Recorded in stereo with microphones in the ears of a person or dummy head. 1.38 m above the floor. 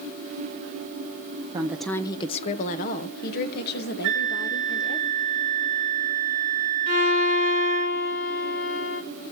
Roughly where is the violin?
Left.